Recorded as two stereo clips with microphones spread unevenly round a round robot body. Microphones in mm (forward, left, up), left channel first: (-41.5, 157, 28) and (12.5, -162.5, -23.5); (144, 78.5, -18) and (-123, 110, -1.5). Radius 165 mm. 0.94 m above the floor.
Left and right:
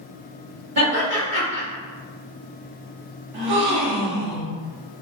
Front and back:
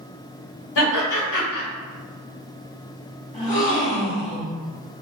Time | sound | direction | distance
0.8 | laughter | 30° right | 1.4 m
3.3 | a gasp | 75° right | 0.8 m